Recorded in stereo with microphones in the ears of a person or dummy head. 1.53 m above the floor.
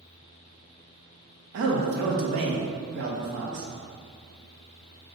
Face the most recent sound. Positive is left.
turn(degrees=-65)  # may be behind; listen again after turning